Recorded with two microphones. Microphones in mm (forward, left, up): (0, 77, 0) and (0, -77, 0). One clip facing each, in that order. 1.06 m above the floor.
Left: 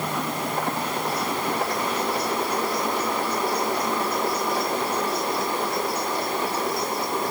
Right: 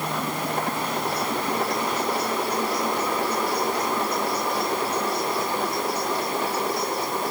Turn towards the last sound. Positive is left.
No sound to turn to.